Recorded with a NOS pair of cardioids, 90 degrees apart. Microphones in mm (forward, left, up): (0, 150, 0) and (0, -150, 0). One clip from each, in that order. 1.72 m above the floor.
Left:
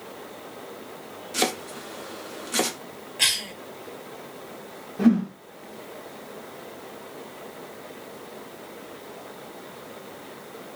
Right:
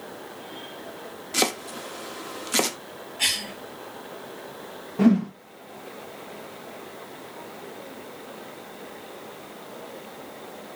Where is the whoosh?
25° right, 0.6 m.